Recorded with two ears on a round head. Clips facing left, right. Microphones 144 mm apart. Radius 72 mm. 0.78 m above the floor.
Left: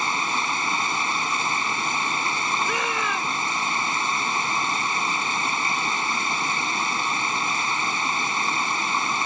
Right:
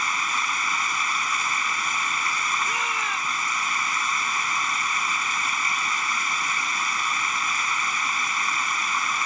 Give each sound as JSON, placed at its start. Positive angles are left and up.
{"t": 0.0, "sound": "running water", "side_deg": 25}
{"t": 2.6, "sound": "a shout", "side_deg": 70}